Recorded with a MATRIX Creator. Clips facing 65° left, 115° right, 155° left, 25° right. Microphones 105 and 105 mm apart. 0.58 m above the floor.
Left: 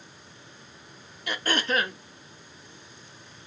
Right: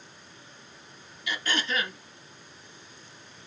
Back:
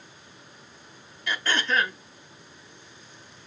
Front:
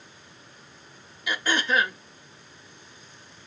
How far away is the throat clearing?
About 0.7 m.